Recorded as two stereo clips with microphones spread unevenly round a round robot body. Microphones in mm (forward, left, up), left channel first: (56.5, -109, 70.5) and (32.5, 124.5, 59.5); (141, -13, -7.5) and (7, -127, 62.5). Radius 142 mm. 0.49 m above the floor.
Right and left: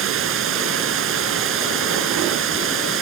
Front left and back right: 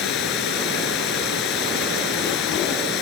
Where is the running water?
65° left.